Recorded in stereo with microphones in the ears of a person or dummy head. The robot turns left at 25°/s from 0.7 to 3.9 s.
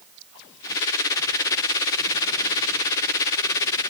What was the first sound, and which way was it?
Only background noise.